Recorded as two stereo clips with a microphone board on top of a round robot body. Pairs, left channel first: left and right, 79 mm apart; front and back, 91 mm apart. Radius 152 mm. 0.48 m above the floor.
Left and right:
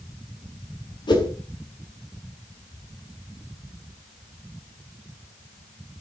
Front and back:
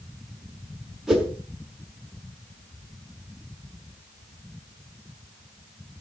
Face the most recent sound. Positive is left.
turn(degrees=95)